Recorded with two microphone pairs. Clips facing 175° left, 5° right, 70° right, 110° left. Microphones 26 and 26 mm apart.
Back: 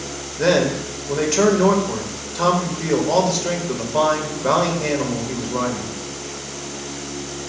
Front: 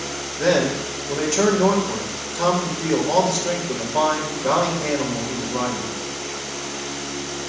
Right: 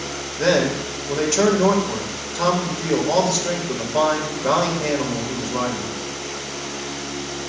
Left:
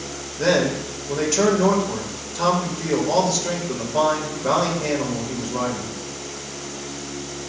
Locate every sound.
0.4 s a man speaking: 145° right, 1.8 m